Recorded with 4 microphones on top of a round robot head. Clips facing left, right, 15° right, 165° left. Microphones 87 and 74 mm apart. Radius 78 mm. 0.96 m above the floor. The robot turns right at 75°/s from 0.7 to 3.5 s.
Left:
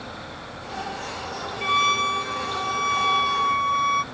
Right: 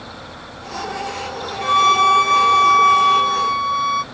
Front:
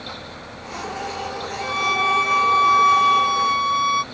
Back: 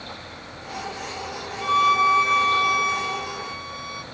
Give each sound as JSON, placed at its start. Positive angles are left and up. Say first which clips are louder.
{"t": 1.6, "sound": "a violin", "louder": "right 9 dB, back 4 dB", "azimuth_deg": -150}